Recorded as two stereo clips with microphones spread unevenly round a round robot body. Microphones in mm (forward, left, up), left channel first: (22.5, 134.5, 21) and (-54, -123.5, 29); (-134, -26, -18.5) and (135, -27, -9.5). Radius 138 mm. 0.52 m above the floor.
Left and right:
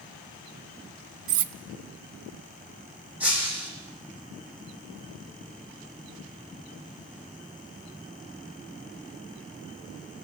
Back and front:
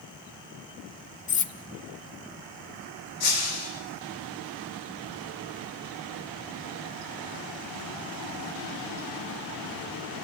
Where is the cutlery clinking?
120° right, 0.9 m.